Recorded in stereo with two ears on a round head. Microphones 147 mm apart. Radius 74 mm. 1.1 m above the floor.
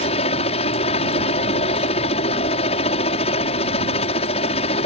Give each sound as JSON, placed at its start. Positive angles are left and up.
{"t": 0.0, "sound": "a helicopter", "side_deg": 40}